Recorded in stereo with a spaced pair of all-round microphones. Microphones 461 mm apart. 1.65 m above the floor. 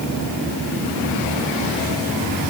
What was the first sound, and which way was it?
Only background noise.